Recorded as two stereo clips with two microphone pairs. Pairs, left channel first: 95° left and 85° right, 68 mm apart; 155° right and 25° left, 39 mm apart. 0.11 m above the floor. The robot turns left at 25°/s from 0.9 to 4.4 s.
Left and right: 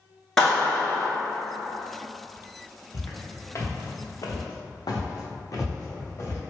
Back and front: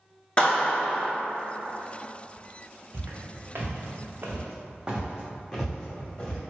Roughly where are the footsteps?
Ahead left.